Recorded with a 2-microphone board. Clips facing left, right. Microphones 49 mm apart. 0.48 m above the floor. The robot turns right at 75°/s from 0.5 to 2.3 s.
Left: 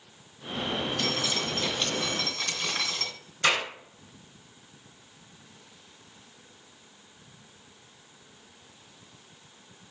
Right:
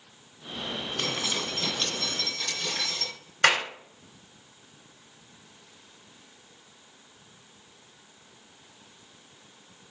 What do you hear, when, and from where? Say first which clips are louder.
1.0 s dripping: left 1 dB; 55° right, 2.5 m; by 3.1 s 45° left, 2.5 m
3.4 s a clap: right 3 dB; 60° right (ahead or behind), 2.5 m